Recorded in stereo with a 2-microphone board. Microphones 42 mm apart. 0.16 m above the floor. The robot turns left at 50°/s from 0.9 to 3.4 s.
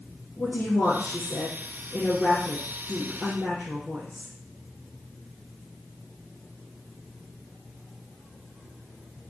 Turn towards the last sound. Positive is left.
turn(degrees=-45)